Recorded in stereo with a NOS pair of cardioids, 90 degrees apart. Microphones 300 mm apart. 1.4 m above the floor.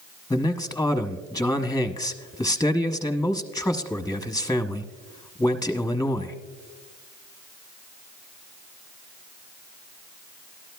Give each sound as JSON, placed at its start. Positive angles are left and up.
{"t": 0.3, "sound": "a man speaking", "azimuth_deg": 10, "distance_m": 0.9}